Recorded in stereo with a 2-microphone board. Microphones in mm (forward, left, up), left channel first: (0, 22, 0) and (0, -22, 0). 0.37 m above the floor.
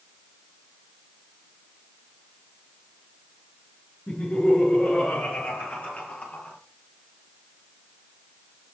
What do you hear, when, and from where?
4.1 s laughter: 30° left (ahead or behind), 6 m; by 6.6 s 40° left (ahead or behind), 7.5 m